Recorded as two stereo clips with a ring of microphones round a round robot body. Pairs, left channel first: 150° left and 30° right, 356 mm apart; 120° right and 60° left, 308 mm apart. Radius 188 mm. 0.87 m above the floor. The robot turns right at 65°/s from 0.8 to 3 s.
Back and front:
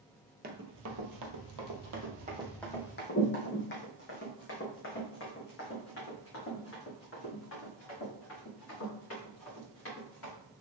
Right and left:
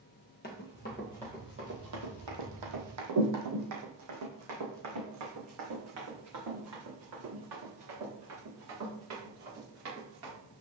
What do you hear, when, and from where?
0.4 s running footsteps: 75° right, 1.0 m; by 10.3 s 95° left, 5.5 m